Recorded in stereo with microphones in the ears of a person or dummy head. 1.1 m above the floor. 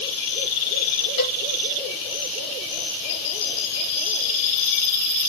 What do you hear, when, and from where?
1.2 s a cowbell: 30° left (ahead or behind), 1.4 m